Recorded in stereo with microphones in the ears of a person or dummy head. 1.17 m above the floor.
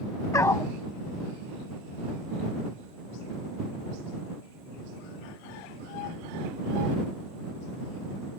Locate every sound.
0.3 s a dog barking: 15° left (ahead or behind)